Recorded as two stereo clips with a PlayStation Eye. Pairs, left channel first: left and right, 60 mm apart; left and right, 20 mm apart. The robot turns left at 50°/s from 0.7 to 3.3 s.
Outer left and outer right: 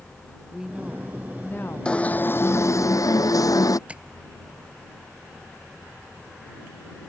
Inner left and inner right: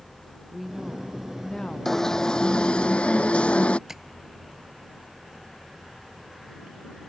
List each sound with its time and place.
0.5 s a woman speaking: 170° right; by 2.9 s 85° left
1.9 s an alarm: 165° left; by 3.8 s 90° left
3.9 s tapping: 20° right (ahead or behind)